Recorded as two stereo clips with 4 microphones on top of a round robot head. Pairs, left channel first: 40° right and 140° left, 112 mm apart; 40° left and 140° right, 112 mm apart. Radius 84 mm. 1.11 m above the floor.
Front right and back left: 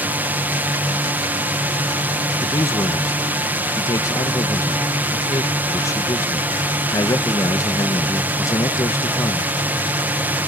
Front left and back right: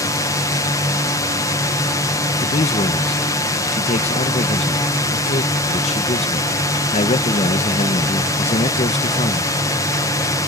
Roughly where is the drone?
Left.